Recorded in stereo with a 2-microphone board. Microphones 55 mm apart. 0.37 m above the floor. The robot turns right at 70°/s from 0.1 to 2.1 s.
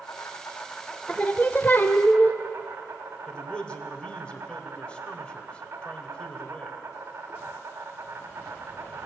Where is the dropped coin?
I don't hear a dropped coin.